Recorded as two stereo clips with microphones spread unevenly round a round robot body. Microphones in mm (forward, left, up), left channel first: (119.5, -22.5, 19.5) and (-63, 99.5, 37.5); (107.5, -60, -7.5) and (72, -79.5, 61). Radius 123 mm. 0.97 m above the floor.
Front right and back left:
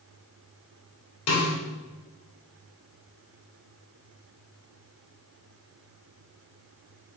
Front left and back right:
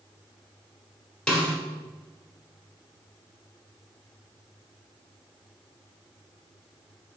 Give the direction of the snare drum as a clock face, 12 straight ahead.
1 o'clock.